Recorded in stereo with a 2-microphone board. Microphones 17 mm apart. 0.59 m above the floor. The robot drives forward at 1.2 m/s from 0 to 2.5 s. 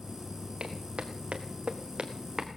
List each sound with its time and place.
0.6 s footsteps: 60° right (ahead or behind), 2.5 m; by 2.6 s 30° right (ahead or behind), 2.0 m